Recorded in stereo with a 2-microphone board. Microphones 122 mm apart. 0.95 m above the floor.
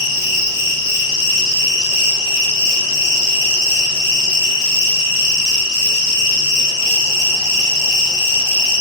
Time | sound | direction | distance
0.0 | an insect | 25° right (ahead or behind) | 1.2 m